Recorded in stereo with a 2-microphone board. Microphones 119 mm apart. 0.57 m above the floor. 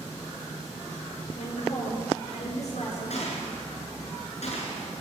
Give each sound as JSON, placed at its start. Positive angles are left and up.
{"t": 1.4, "sound": "a woman speaking", "side_deg": 70, "distance_m": 10.0}
{"t": 3.1, "sound": "a gunshot", "side_deg": 65, "distance_m": 7.0}